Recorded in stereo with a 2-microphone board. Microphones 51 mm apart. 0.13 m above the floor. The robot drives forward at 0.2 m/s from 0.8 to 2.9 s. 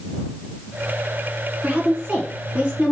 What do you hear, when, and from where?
1.6 s a woman speaking: 25° right (ahead or behind), 1.1 m